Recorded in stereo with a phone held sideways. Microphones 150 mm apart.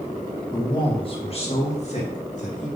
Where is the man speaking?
30° left (ahead or behind), 1.7 m; by 2.7 s 55° left (ahead or behind), 2.5 m.